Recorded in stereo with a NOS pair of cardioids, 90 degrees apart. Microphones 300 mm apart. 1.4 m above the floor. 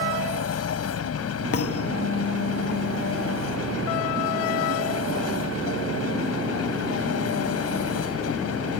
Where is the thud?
55° left.